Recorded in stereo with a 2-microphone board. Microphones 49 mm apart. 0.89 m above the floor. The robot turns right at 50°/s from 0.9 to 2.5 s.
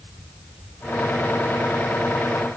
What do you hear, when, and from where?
Only background noise.